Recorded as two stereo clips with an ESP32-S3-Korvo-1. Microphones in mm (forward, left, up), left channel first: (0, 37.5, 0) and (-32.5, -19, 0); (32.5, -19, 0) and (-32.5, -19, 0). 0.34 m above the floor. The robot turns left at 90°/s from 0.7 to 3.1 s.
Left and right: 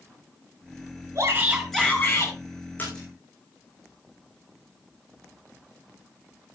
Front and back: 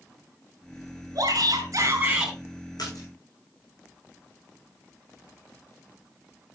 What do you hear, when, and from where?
1.1 s a shout: 160° right, 5.5 m; by 2.3 s 90° left, 5.5 m
2.8 s a splash: straight ahead, 6.5 m; by 3.1 s 30° right, 6.5 m